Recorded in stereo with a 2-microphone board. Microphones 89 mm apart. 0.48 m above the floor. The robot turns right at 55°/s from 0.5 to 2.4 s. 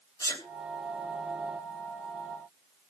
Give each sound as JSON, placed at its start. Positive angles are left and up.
{"t": 0.2, "sound": "a sneeze", "side_deg": 40, "distance_m": 3.0}